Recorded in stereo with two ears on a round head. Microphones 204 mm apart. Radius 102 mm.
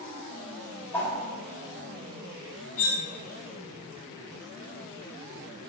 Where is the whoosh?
10° left (ahead or behind), 1.0 m.